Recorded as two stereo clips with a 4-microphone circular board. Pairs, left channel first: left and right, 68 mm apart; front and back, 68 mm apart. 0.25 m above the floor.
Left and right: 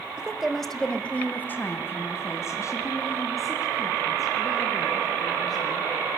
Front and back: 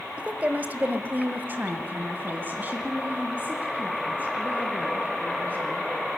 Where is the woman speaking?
145° right, 1.0 m; by 5.9 s 115° left, 3.5 m.